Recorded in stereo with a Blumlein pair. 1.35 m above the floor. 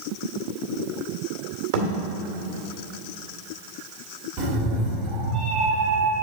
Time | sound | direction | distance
1.7 | a thud | 45° right | 2 m
4.4 | a cat meowing | 30° right | 2.0 m